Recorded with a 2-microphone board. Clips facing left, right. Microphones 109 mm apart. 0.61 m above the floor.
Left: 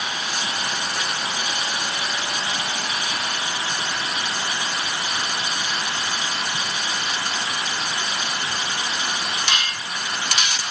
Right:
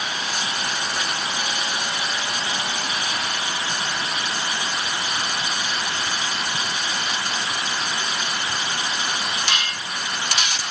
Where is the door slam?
No door slam in this recording.